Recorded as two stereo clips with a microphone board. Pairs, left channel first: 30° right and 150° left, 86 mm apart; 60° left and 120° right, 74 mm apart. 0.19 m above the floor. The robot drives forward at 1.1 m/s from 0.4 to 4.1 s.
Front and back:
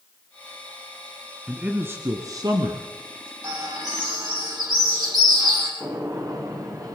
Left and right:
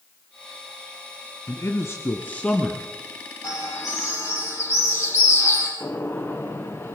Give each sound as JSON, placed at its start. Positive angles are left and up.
{"t": 1.5, "sound": "a man speaking", "azimuth_deg": 75, "distance_m": 1.6}
{"t": 3.4, "sound": "a bird", "azimuth_deg": 110, "distance_m": 6.5}
{"t": 5.8, "sound": "a gunshot", "azimuth_deg": 110, "distance_m": 2.5}